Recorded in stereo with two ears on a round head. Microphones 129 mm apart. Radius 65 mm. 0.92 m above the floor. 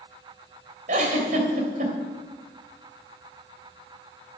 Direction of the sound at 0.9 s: 55° right (ahead or behind).